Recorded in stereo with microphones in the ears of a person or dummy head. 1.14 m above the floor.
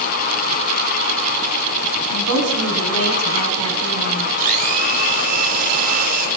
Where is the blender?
50° right (ahead or behind), 4.5 m.